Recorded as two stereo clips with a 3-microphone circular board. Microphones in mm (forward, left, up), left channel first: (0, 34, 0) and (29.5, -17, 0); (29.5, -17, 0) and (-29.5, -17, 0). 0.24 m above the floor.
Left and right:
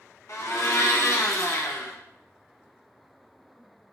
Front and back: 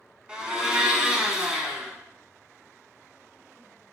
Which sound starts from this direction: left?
A blender, at 0.3 s.